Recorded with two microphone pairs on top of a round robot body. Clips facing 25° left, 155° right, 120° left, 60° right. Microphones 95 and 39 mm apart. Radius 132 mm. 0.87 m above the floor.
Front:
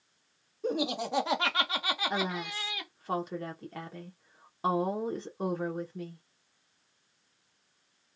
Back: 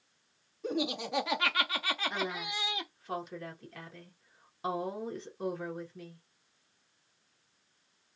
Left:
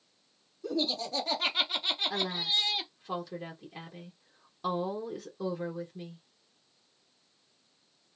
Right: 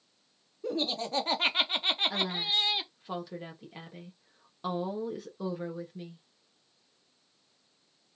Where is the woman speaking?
25° left, 1.1 m.